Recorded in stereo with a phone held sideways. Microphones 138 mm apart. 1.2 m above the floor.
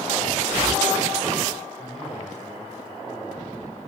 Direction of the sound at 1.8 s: 60° left (ahead or behind).